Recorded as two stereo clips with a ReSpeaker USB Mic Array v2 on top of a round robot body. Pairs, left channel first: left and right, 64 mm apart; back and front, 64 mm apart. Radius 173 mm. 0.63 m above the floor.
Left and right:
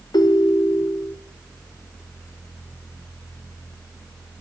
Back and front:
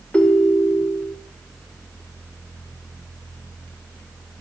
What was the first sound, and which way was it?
A ringtone, 105° left.